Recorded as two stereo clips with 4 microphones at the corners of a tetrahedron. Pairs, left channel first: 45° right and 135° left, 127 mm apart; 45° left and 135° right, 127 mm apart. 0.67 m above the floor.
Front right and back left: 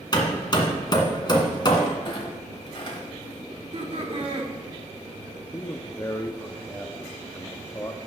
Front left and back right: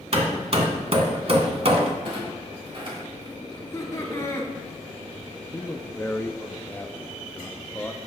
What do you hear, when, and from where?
0.1 s hammering: 100° right, 1.5 m
2.0 s a clunk: 90° right, 2 m
3.5 s laughter: 110° left, 1.7 m
5.5 s a man speaking: 10° right, 0.6 m